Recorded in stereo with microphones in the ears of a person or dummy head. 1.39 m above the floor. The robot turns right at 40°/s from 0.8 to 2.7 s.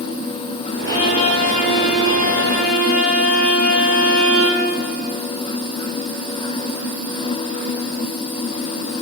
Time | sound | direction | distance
0.9 | a violin | 25° left | 4 m